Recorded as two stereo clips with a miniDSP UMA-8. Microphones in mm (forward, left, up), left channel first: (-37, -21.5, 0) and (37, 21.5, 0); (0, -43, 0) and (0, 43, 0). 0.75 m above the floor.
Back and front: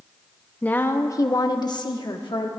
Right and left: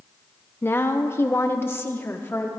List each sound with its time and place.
0.6 s a woman speaking: 95° right, 0.7 m; by 2.5 s 150° right, 1.6 m